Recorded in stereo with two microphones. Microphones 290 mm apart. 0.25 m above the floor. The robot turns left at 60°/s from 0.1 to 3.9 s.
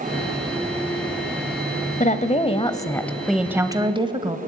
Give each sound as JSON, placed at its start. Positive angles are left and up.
{"t": 2.0, "sound": "a woman speaking", "side_deg": 25, "distance_m": 1.2}